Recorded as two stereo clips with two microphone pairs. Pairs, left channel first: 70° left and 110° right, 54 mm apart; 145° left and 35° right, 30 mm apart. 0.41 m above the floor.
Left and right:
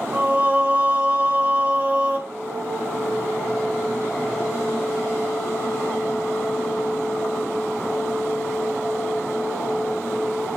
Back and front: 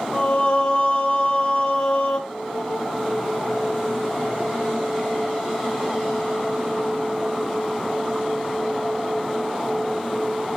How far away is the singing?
About 0.9 m.